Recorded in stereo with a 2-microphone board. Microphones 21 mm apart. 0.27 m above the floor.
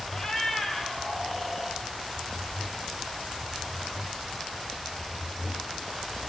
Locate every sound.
0.1 s a cat meowing: 25° left (ahead or behind), 3.5 m; by 1.8 s 10° left (ahead or behind), 3.5 m